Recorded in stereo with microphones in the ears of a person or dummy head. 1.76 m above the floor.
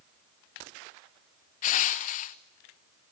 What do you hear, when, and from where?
1.6 s crushing: 40° left (ahead or behind), 0.9 m